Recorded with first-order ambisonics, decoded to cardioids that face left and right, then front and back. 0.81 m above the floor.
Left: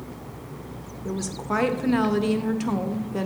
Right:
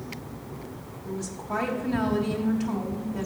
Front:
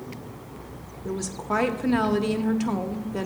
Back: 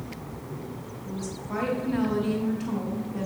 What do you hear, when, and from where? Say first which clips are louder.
1.1 s a woman speaking: left 4 dB, front 8 dB; 40° left, 0.7 m